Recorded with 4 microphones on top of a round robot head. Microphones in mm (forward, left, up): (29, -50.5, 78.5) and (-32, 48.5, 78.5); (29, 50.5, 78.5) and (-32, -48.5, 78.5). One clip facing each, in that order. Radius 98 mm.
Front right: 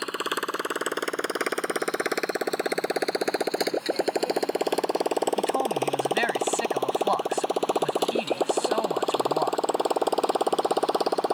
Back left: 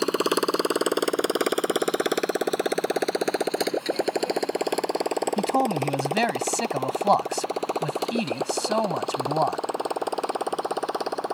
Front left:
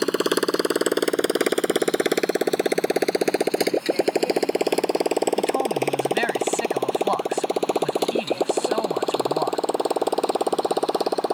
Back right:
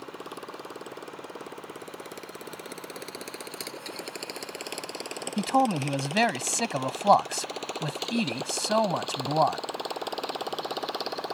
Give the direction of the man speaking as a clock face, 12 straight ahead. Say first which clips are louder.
Back left 2 dB, front left 2 dB; 6 o'clock.